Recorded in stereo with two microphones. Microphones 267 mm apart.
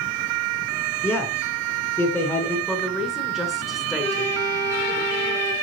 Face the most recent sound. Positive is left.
turn(degrees=40)  # may be behind; listen again after turning